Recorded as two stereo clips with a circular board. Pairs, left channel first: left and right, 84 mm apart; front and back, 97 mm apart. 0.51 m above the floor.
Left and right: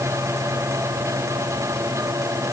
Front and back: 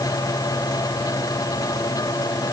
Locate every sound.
Only background noise.